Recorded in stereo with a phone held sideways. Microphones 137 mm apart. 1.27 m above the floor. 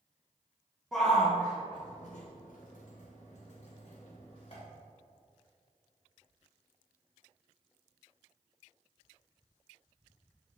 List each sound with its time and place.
0.9 s a shout: 5° left (ahead or behind), 1.2 m; by 4.6 s 45° left (ahead or behind), 2.5 m